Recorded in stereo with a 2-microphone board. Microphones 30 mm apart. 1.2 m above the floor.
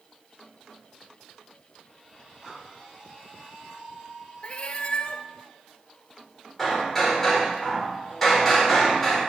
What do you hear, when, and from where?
2.4 s breathing: centre (ahead or behind), 3.5 m
4.4 s a cat meowing: 40° left (ahead or behind), 0.6 m
6.6 s hammering: 15° left (ahead or behind), 3.5 m